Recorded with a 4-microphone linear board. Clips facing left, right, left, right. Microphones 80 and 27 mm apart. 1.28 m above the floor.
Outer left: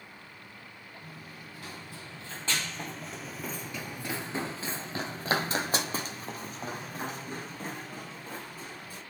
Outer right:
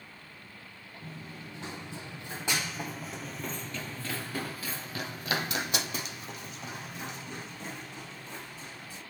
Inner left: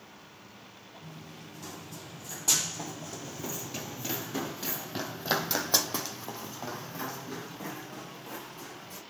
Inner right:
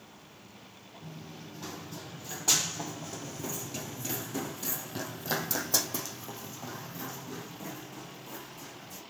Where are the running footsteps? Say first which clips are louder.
Outer right 5 dB, inner right 2 dB; 30° right (ahead or behind), 2.0 m; by 9.0 s 45° left (ahead or behind), 3.5 m.